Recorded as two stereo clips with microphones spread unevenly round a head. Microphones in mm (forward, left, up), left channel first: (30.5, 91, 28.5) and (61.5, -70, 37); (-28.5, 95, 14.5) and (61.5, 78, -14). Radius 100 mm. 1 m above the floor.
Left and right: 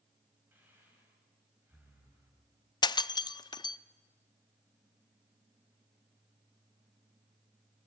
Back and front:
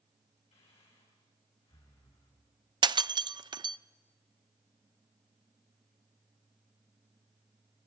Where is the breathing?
160° right, 4 m.